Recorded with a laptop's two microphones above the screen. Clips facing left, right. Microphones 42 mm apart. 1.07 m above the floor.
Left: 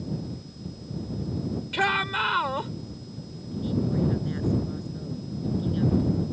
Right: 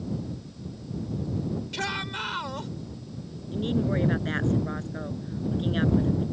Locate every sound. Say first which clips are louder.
1.7 s a shout: left 11 dB; 30° left (ahead or behind)
3.5 s a woman speaking: right 1 dB; 55° right (ahead or behind)